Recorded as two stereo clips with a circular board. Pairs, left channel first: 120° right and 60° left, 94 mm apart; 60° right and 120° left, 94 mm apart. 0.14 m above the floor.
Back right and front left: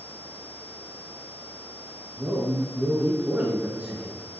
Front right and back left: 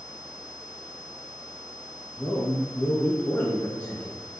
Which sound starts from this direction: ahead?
A man speaking, at 2.2 s.